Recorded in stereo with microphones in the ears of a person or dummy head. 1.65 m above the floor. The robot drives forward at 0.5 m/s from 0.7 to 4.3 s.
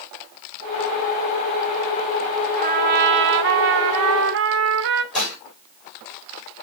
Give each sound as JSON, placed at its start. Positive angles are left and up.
{"t": 2.6, "sound": "a trumpet", "side_deg": -45, "distance_m": 0.8}
{"t": 5.1, "sound": "dishes clattering", "side_deg": 0, "distance_m": 6.0}